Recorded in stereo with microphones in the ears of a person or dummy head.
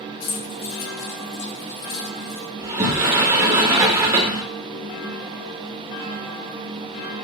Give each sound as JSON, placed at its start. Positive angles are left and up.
{"t": 0.2, "sound": "keys jangling", "side_deg": 75, "distance_m": 2.0}
{"t": 2.6, "sound": "a sliding door", "side_deg": -20, "distance_m": 1.0}